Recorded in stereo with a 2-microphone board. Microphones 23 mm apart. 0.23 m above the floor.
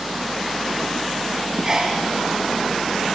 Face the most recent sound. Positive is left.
turn(degrees=-25)  # may be behind; listen again after turning